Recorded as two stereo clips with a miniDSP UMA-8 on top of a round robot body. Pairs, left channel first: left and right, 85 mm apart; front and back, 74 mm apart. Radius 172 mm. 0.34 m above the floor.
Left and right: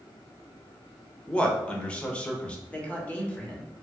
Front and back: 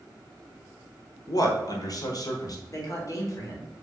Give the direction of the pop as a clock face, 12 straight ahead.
No pop in this recording.